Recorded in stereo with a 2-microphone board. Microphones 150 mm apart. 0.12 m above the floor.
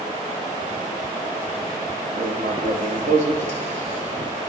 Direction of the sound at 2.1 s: 55° right (ahead or behind).